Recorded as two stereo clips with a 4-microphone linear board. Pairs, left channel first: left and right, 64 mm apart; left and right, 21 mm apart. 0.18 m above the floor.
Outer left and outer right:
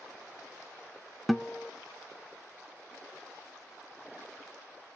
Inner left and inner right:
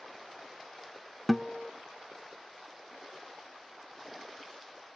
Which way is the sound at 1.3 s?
Centre (ahead or behind).